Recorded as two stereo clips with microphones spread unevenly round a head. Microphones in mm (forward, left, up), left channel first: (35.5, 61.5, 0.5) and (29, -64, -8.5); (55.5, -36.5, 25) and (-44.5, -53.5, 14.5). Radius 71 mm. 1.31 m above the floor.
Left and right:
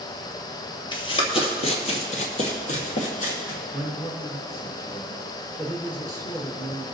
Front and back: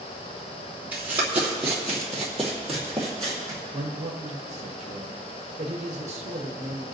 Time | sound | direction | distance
0.9 | running footsteps | 110° left | 1.7 m
3.7 | a man speaking | 155° left | 1.0 m